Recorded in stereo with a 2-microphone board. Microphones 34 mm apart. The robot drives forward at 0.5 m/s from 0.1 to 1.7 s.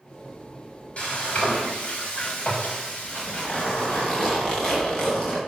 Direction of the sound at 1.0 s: 35° left (ahead or behind).